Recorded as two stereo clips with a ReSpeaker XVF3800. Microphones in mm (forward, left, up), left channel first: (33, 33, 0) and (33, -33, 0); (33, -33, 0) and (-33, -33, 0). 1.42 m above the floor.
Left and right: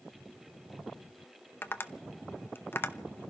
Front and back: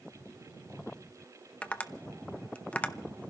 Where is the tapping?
60° left, 0.7 m.